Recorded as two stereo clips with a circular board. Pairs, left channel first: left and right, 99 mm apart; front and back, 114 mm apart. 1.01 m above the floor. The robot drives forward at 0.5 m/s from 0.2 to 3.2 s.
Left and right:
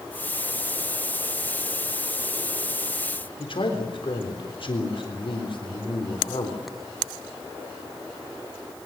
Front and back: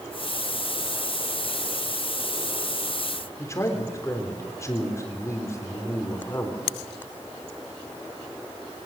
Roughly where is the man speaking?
Ahead left.